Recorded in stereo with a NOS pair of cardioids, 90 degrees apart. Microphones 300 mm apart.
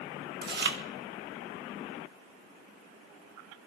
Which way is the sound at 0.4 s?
35° right.